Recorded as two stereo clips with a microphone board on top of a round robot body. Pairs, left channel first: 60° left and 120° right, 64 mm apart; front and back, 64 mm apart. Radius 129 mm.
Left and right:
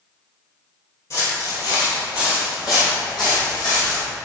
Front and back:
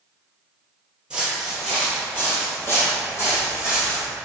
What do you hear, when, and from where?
1.1 s footsteps: 100° left, 1.3 m; by 4.0 s 50° left, 2.5 m